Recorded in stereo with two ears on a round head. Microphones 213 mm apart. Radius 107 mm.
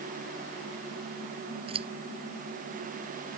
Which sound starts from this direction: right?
Scissors, at 1.7 s.